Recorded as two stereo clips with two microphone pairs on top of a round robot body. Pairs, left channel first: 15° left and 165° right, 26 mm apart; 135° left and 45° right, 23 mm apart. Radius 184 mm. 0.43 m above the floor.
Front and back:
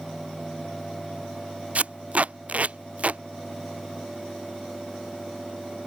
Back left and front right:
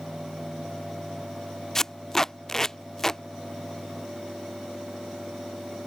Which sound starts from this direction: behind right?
Tape being pulled, at 1.8 s.